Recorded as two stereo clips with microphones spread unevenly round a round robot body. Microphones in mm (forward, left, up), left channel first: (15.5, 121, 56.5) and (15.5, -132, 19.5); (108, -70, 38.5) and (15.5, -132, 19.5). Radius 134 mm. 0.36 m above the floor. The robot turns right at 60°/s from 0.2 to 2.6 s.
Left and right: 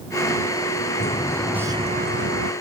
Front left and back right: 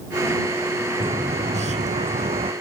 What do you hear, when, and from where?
1.0 s a bird: 150° left; by 2.5 s 115° right